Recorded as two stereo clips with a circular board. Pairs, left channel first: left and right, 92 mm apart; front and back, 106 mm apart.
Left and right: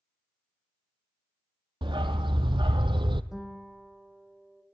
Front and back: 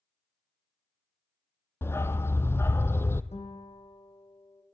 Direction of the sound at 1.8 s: 65° right.